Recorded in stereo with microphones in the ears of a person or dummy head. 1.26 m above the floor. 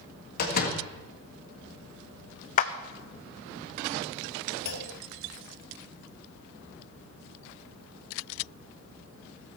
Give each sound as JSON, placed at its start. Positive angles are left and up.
{"t": 0.4, "sound": "a door slam", "side_deg": 50, "distance_m": 1.8}
{"t": 2.6, "sound": "a clap", "side_deg": 45, "distance_m": 0.9}
{"t": 4.7, "sound": "a clunk", "side_deg": 60, "distance_m": 1.8}